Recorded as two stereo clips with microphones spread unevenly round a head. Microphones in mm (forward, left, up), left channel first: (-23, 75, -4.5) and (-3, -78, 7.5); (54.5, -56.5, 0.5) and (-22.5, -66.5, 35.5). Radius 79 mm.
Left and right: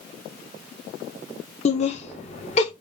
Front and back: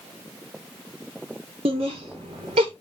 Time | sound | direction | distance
1.6 | laughter | 145° left | 1.5 m